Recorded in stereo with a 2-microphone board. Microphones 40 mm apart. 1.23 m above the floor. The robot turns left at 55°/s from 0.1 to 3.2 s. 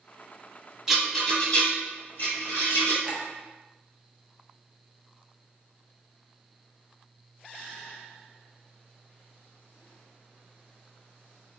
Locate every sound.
0.9 s a rattle: 10° right (ahead or behind), 1.1 m; by 2.9 s 75° left (ahead or behind), 1.1 m
3.0 s a clink: 25° right (ahead or behind), 0.6 m; by 3.2 s 20° right (ahead or behind), 0.6 m